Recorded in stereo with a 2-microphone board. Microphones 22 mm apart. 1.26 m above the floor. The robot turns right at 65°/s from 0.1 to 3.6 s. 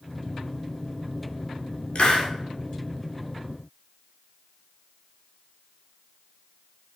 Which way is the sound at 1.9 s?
60° left (ahead or behind).